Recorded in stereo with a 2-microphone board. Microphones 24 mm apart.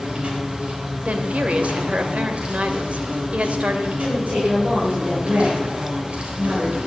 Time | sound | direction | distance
0.0 | an insect | 60° right (ahead or behind) | 4 m
1.1 | a woman speaking | 70° right (ahead or behind) | 2 m
4.0 | a woman speaking | 75° right (ahead or behind) | 9.5 m